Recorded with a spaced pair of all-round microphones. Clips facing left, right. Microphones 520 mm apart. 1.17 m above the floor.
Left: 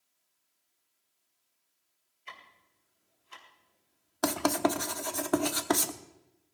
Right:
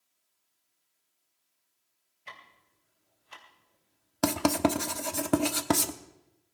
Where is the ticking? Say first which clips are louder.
Right 1 dB; 80° right, 3 m.